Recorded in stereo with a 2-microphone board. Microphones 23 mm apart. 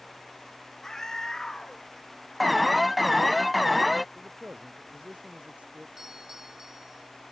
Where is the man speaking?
70° right (ahead or behind).